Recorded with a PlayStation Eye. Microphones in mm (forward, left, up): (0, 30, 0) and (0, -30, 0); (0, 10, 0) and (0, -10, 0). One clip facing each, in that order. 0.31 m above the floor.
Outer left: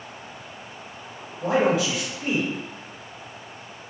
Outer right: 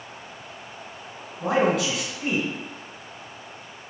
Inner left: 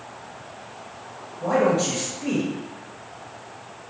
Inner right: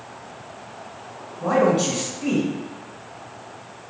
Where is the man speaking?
60° right (ahead or behind), 1.8 m.